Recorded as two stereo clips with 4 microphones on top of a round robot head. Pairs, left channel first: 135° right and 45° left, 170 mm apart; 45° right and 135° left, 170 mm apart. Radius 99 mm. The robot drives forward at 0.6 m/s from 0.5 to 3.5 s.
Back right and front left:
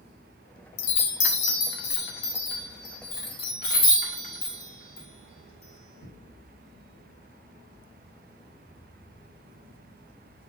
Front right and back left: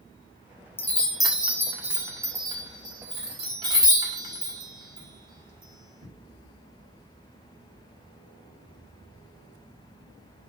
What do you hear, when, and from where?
0.8 s a chime: 125° right, 0.8 m; by 6.1 s 165° right, 2 m